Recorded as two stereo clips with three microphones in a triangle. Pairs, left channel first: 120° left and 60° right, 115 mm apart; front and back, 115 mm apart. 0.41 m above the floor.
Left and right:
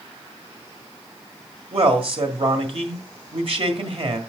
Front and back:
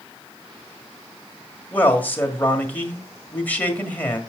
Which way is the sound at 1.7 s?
75° right.